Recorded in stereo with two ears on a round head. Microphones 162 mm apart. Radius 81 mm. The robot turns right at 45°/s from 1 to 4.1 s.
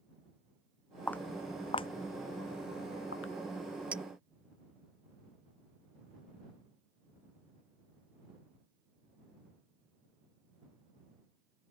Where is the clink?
10° right (ahead or behind); by 4.0 s 5° right (ahead or behind).